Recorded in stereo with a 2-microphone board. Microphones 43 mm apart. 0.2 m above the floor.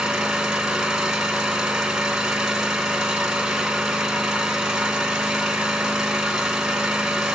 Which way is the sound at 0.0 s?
15° right (ahead or behind).